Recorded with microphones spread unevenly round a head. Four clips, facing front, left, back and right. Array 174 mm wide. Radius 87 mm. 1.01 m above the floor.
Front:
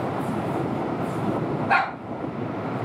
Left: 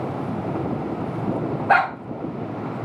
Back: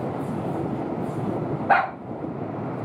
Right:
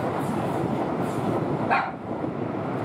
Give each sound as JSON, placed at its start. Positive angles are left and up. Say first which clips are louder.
{"t": 1.7, "sound": "a dog barking", "louder": "left 8 dB, back 3 dB", "azimuth_deg": 115, "distance_m": 1.7}